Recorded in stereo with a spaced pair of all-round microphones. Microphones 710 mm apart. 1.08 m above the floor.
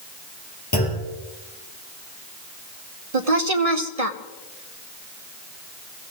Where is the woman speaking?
55° right (ahead or behind), 1.1 m.